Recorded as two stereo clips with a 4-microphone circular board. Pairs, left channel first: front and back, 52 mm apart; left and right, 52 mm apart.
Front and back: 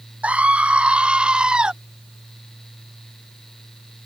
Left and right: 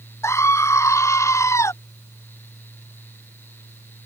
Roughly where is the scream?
Behind left.